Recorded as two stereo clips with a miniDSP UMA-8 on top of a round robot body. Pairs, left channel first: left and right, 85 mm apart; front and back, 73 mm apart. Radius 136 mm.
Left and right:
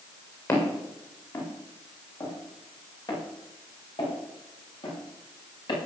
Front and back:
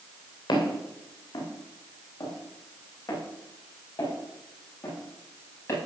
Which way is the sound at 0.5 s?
35° left.